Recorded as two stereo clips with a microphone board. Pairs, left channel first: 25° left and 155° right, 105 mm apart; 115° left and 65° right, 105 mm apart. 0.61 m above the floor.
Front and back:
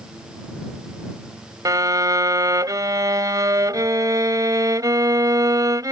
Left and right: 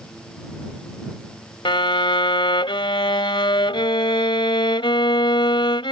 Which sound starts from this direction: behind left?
A violin, at 1.6 s.